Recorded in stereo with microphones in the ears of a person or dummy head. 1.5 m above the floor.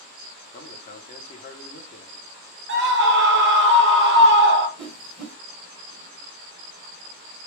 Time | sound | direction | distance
0.5 | a man speaking | 40° left (ahead or behind) | 0.7 m
2.7 | a scream | 60° right (ahead or behind) | 0.5 m
4.8 | a whoosh | 5° left (ahead or behind) | 1.0 m